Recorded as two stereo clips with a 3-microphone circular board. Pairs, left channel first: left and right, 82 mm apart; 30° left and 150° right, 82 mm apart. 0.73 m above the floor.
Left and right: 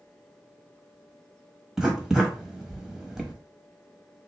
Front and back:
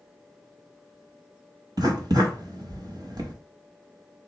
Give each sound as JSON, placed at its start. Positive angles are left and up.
{"t": 1.8, "sound": "writing", "azimuth_deg": -175, "distance_m": 0.8}